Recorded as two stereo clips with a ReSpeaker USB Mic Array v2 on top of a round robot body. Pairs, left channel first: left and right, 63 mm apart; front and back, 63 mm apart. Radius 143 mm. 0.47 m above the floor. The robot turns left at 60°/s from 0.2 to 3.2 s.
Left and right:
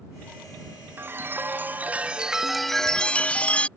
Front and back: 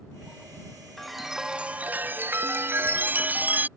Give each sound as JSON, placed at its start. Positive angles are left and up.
{"t": 1.0, "sound": "a chime", "azimuth_deg": -80}